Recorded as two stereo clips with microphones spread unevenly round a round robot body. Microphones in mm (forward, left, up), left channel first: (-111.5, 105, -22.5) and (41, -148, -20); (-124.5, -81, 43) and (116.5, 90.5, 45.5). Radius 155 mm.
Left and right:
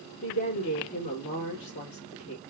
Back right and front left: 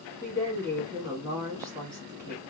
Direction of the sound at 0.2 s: 100° left.